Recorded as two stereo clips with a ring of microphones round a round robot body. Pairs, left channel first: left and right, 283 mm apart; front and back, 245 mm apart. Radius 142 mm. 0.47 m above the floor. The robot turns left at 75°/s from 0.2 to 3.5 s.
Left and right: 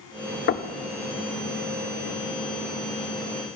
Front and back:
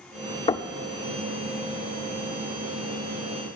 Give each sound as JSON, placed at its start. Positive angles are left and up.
{"t": 0.5, "sound": "knocking", "azimuth_deg": 60, "distance_m": 0.6}